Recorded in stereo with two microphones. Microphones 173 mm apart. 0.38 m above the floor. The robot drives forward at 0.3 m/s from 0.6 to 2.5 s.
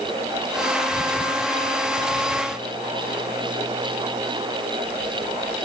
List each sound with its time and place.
Only background noise.